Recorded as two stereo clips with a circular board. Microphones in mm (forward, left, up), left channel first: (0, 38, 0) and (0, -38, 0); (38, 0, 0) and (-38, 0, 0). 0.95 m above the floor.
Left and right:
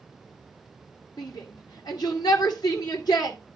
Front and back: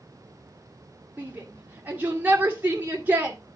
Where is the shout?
115° left, 1.8 m.